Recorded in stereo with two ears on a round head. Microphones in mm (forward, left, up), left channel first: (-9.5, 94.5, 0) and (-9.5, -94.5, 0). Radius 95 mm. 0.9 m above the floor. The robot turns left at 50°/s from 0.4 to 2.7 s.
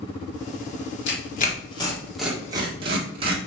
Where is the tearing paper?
55° left (ahead or behind), 1.6 m; by 3.4 s 25° right (ahead or behind), 1.6 m.